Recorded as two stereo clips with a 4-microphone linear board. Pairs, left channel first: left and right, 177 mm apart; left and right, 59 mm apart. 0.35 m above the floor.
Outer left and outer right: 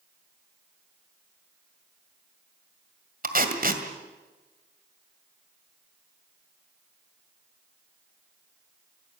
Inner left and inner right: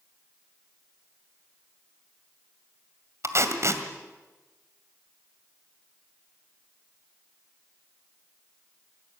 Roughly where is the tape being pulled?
Right.